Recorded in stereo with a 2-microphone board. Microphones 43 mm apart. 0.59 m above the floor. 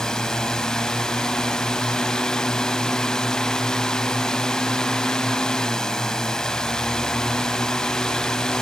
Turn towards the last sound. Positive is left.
turn(degrees=15)  # may be behind; listen again after turning